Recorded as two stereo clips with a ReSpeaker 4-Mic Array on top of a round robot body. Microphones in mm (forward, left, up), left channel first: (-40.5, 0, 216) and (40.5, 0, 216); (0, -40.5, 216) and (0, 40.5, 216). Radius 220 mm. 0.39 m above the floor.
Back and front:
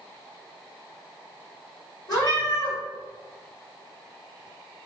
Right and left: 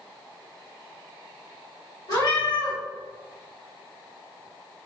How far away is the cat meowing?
About 2.0 m.